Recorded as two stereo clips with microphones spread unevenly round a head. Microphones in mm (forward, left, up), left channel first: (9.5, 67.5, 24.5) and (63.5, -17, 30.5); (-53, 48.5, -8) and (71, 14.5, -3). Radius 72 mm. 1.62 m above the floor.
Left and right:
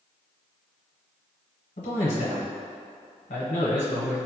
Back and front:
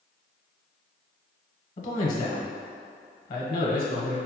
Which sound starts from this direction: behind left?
A man speaking, at 1.8 s.